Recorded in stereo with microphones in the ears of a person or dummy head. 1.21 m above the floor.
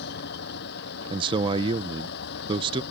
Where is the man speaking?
30° right (ahead or behind).